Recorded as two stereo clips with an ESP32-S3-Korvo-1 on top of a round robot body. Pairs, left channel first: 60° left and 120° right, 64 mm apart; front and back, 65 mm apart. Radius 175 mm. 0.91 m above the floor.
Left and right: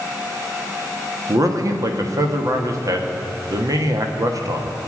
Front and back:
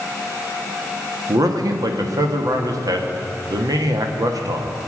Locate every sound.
1.3 s a man speaking: 155° right, 1.6 m